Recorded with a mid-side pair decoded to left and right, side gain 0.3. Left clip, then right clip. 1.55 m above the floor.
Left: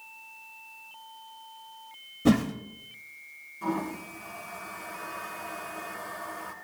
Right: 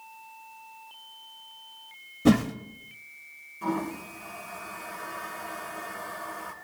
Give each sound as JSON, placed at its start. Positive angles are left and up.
{"t": 2.2, "sound": "a whoosh", "azimuth_deg": -25, "distance_m": 1.5}
{"t": 3.6, "sound": "a toilet flushing", "azimuth_deg": -15, "distance_m": 5.0}